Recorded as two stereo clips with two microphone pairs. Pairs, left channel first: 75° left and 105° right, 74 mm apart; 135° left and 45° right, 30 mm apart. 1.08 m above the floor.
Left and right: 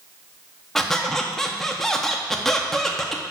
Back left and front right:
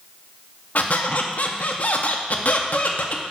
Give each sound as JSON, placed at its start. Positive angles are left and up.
{"t": 0.8, "sound": "a squeak", "azimuth_deg": 160, "distance_m": 0.8}